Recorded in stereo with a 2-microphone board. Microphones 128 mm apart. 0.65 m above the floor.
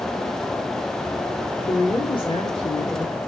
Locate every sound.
1.6 s a woman speaking: 40° left (ahead or behind), 1.6 m